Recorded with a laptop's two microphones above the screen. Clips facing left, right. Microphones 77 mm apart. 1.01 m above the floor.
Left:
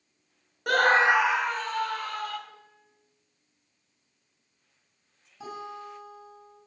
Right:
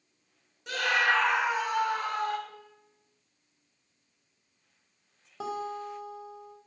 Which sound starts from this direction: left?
A scream, at 0.7 s.